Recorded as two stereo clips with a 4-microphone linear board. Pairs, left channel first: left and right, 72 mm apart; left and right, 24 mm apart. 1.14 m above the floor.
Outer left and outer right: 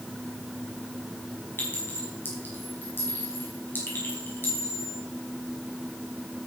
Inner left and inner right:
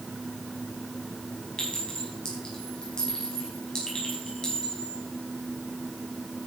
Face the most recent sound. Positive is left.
turn(degrees=30)  # may be behind; listen again after turning